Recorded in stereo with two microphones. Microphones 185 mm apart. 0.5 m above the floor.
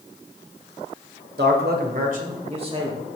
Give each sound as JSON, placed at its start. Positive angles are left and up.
{"t": 1.4, "sound": "a man speaking", "side_deg": -60, "distance_m": 1.7}